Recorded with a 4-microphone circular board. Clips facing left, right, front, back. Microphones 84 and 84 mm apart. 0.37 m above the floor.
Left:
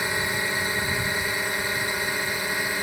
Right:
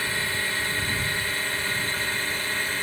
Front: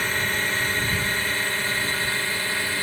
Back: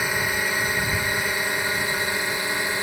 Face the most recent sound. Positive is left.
turn(degrees=140)